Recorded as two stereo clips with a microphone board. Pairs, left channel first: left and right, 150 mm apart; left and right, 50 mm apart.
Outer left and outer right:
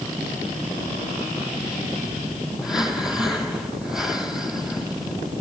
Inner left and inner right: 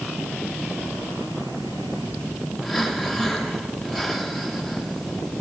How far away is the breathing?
About 2.5 m.